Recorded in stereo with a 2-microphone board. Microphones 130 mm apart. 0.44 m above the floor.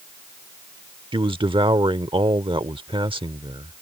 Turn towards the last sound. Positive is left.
turn(degrees=-45)  # may be behind; listen again after turning